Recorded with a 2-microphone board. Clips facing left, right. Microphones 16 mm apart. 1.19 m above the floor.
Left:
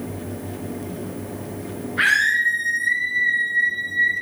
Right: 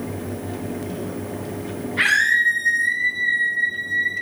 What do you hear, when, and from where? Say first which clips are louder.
2.0 s a scream: right 1 dB; 35° right (ahead or behind), 3.5 m